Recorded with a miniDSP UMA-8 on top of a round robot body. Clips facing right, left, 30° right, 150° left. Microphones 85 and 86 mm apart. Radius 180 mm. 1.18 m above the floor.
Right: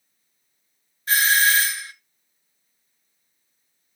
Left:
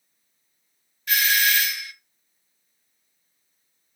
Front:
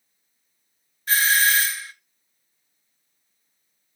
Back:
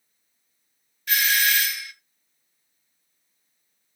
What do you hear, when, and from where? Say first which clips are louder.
1.1 s a doorbell: right 4 dB, front 3 dB; 60° right, 1.2 m